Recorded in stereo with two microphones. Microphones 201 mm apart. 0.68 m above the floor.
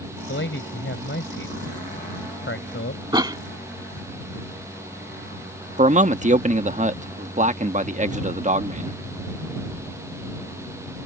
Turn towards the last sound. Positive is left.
turn(degrees=-35)  # may be behind; listen again after turning